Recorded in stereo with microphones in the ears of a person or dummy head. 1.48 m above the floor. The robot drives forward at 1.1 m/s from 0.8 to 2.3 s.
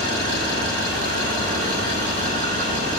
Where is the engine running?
60° right (ahead or behind), 6 m; by 3.0 s 45° right (ahead or behind), 7 m.